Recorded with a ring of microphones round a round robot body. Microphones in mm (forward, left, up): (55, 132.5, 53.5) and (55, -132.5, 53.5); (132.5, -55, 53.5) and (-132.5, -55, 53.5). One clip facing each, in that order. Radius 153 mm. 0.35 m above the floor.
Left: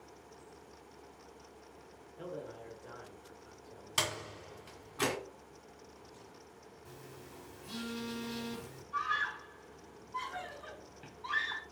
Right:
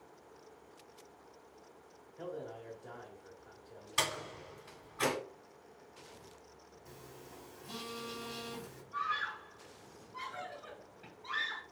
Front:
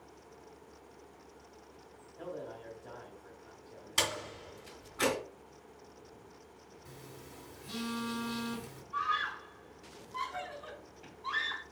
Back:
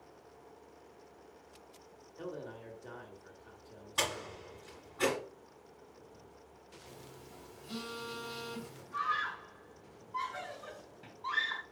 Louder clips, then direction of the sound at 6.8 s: Left 1 dB, front 2 dB; 40° left.